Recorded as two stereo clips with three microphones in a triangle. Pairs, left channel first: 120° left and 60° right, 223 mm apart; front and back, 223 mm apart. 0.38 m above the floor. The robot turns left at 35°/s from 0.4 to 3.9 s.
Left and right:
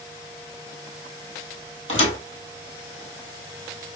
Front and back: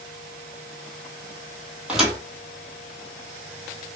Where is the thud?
95° left, 1.3 m; by 2.2 s 85° left, 1.3 m.